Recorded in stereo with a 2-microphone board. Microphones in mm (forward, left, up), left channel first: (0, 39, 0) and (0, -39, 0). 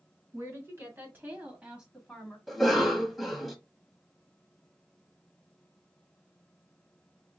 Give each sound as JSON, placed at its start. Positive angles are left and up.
{"t": 0.3, "sound": "a woman speaking", "side_deg": -40, "distance_m": 2.0}
{"t": 2.5, "sound": "a cough", "side_deg": 0, "distance_m": 1.0}